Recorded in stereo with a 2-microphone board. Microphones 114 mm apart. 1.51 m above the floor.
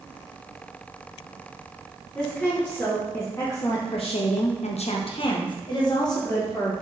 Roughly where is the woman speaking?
Centre.